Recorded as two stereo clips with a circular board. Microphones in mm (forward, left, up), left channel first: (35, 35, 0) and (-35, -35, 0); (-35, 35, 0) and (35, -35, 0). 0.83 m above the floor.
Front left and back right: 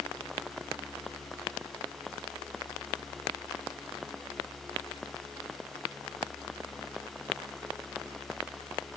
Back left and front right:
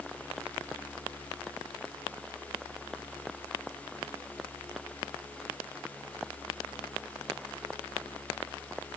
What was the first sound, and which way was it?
Only background noise.